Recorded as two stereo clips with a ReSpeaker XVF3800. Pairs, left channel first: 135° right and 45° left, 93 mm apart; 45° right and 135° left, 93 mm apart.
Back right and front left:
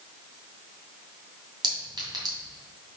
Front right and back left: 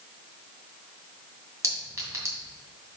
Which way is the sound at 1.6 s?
80° left.